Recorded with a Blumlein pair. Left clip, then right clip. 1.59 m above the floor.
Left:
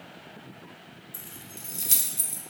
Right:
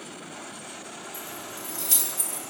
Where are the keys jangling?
15° left, 1.4 m.